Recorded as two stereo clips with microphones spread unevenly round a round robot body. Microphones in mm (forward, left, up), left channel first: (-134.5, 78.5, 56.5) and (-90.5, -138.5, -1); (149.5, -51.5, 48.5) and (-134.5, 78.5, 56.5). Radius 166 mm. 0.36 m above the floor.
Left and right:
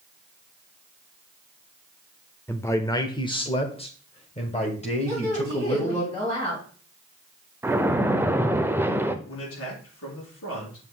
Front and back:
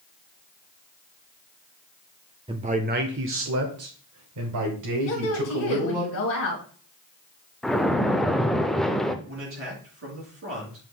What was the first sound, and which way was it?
A man speaking, 155° right.